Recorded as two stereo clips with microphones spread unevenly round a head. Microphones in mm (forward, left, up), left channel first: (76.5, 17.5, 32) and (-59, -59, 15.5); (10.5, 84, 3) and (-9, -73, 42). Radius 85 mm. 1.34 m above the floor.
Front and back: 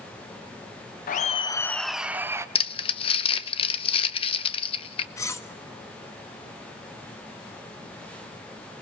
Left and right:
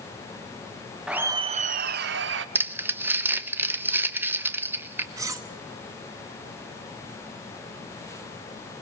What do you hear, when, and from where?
1.1 s laughter: 10° right, 0.5 m; by 2.5 s 80° right, 1.0 m
2.5 s crumpling: 25° right, 0.7 m
5.2 s cutlery clinking: 35° right, 1.0 m